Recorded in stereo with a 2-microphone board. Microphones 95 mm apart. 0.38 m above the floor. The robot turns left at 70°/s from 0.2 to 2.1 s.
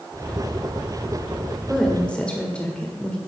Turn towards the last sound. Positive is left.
turn(degrees=10)  # may be behind; listen again after turning